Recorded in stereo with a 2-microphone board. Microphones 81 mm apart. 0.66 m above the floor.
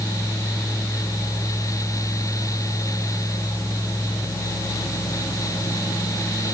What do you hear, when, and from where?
Only background noise.